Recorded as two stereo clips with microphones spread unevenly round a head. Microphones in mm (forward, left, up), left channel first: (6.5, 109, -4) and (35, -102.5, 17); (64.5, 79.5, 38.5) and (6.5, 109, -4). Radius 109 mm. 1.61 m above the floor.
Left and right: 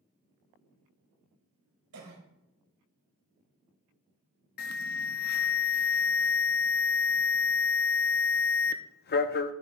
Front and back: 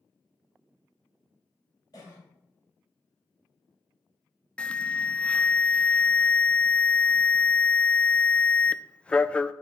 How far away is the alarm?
About 0.5 m.